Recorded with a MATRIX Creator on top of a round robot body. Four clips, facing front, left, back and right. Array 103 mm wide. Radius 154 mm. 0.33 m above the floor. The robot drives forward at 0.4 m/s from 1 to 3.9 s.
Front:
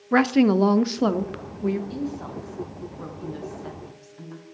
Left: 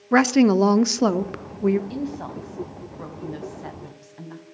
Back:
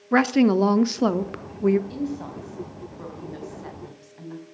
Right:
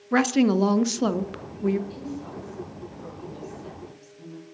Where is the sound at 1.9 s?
95° left, 4 m; by 4.4 s 110° left, 4 m.